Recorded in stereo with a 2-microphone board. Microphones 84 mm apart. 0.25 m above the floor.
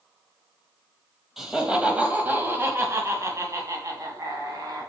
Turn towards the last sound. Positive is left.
turn(degrees=-50)  # may be behind; listen again after turning